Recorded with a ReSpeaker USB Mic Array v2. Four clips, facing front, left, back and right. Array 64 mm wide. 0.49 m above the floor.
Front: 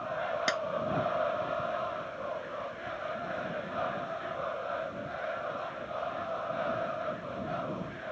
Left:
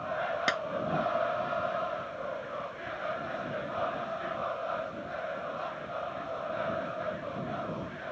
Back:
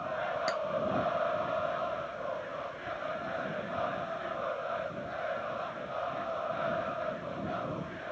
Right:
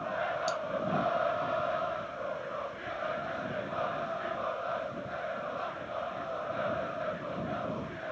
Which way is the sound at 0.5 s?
65° left.